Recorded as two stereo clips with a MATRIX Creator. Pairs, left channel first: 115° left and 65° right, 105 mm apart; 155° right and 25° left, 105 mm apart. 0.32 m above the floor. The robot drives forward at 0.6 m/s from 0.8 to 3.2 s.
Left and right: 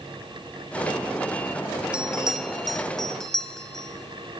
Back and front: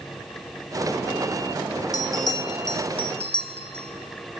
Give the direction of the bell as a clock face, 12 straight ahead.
5 o'clock.